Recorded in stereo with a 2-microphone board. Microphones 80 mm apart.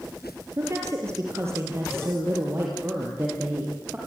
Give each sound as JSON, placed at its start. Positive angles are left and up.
{"t": 0.6, "sound": "a woman speaking", "side_deg": -40, "distance_m": 4.5}